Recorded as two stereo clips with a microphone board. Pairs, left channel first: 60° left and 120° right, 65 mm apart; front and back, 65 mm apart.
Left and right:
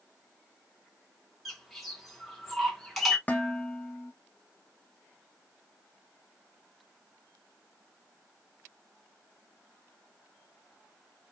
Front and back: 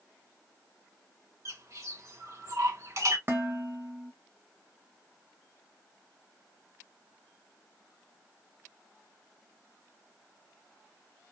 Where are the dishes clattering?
125° left, 0.7 m.